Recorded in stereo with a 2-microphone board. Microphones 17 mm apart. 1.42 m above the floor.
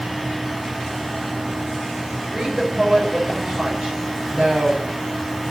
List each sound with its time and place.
2.3 s a woman speaking: 65° right (ahead or behind), 5.5 m